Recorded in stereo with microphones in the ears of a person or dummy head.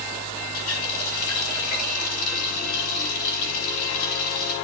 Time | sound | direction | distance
0.5 | a running tap | 55° left (ahead or behind) | 6 m